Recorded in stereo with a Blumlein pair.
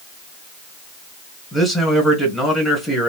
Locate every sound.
1.5 s a man speaking: 5° left, 1.5 m